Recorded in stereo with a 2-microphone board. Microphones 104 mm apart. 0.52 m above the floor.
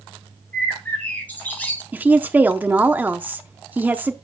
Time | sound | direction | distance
0.5 | a bird | 15° left (ahead or behind) | 3.5 m
1.9 | a woman speaking | 15° right (ahead or behind) | 0.6 m